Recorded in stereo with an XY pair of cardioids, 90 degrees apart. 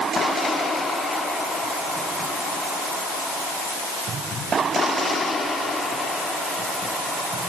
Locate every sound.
Only background noise.